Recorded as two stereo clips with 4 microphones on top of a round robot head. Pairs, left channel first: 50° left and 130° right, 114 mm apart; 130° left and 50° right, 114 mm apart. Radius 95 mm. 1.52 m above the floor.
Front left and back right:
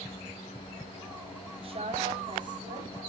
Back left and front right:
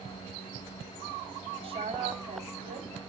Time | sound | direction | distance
1.6 | a woman speaking | 90° right | 3.5 m